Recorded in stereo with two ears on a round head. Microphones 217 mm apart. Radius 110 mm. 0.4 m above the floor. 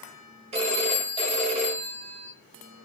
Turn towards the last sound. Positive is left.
turn(degrees=-25)  # may be behind; listen again after turning